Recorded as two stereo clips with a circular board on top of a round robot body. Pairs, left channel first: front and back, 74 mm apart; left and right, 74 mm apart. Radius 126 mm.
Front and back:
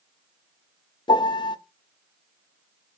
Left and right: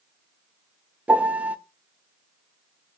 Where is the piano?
15° right, 0.5 m.